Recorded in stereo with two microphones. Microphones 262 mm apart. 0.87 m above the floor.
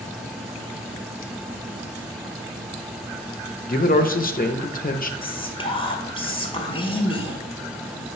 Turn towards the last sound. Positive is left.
turn(degrees=20)  # may be behind; listen again after turning